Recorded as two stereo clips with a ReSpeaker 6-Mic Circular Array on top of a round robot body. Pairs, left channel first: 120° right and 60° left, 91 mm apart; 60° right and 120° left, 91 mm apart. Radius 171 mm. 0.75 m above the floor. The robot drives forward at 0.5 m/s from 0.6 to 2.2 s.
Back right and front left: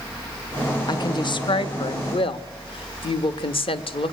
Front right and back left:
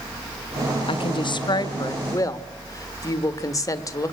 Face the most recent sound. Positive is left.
turn(degrees=-115)